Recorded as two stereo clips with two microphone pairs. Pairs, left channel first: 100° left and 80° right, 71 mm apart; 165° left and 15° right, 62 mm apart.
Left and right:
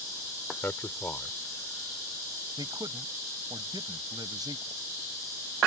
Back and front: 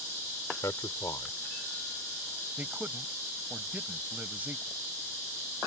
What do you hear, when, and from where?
0.6 s a man speaking: 150° left
2.6 s a man speaking: 75° right